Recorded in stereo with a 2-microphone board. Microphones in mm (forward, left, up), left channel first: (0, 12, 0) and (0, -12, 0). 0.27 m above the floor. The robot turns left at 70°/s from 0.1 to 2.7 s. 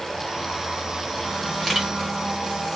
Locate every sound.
1.6 s a camera shutter: 5° left (ahead or behind), 2 m; by 1.9 s 15° right (ahead or behind), 2 m